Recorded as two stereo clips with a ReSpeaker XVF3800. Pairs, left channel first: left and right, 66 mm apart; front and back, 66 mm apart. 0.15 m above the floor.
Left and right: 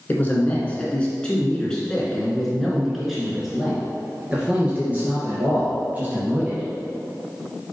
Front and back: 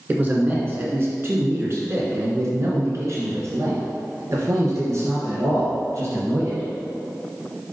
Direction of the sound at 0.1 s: 135° left.